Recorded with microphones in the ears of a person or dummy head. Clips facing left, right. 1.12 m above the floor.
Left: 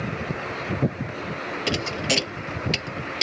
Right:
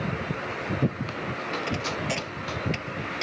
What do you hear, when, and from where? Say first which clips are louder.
1.7 s a thud: left 6 dB; 55° left (ahead or behind)